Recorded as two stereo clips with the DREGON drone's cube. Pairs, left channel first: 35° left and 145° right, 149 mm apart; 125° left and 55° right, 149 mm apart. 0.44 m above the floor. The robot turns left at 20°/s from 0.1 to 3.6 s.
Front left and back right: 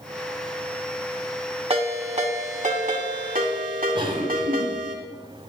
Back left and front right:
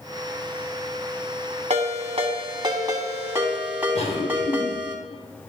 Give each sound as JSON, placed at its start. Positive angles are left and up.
{"t": 1.7, "sound": "a ringtone", "azimuth_deg": -95, "distance_m": 1.8}
{"t": 4.0, "sound": "a cough", "azimuth_deg": 165, "distance_m": 4.0}